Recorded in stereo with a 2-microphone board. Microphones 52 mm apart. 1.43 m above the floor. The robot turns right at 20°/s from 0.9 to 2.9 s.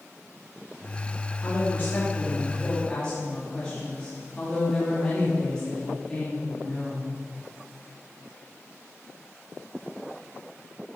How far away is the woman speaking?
About 3.5 m.